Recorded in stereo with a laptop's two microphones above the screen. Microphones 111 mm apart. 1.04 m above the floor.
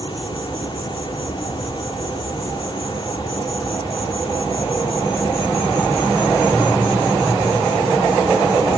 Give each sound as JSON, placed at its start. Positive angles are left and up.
{"t": 0.0, "sound": "an insect", "side_deg": 50}